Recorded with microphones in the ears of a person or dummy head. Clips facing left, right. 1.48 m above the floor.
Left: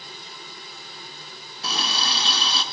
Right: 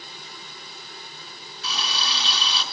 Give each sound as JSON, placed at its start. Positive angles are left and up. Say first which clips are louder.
{"t": 1.6, "sound": "a running tap", "louder": "left 3 dB", "side_deg": 55, "distance_m": 2.5}